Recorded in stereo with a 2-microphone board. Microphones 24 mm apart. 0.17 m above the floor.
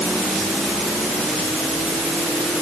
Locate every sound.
Only background noise.